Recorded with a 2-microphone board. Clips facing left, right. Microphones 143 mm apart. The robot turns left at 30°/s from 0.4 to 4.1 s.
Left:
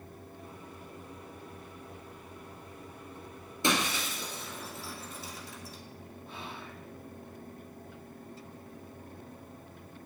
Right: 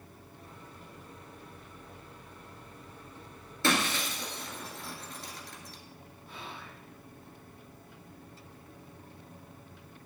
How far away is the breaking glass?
About 1.5 m.